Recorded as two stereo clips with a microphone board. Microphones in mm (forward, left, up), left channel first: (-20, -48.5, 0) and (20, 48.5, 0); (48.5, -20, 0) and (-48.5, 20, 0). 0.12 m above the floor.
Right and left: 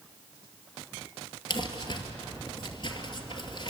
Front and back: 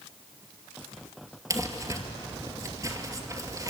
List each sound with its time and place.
1.5 s crumpling: 150° right, 2.5 m